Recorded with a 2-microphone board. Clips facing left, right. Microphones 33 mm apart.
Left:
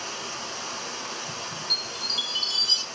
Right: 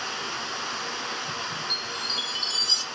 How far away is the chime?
About 3 m.